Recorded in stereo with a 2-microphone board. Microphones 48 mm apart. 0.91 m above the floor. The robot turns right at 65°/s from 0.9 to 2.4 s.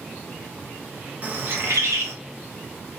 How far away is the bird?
About 0.5 m.